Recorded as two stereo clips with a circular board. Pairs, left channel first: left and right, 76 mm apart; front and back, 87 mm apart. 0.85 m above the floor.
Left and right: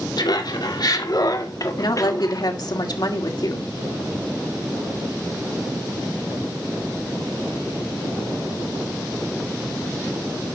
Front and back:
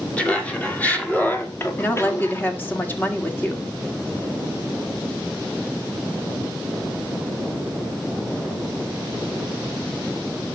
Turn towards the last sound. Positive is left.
turn(degrees=65)